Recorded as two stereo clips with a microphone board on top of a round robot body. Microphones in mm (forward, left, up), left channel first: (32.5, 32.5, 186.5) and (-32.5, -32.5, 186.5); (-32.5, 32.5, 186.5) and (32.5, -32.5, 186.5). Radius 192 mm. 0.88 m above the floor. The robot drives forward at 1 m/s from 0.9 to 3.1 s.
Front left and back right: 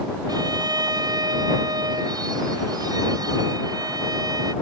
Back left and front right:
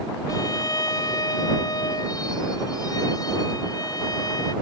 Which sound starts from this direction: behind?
A violin, at 0.3 s.